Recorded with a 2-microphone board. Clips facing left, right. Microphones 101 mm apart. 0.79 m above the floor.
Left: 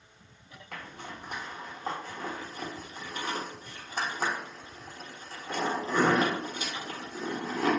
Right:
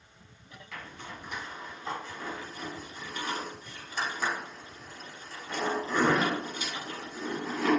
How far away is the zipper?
About 0.7 m.